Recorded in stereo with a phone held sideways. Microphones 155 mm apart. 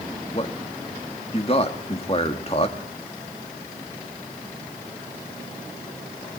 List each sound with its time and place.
0.3 s a man speaking: 40° left (ahead or behind), 2 m